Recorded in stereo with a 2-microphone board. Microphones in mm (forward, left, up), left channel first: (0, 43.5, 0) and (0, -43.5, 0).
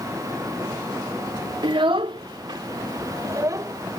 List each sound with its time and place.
1.6 s a child speaking: 70° right (ahead or behind); by 3.7 s 35° right (ahead or behind)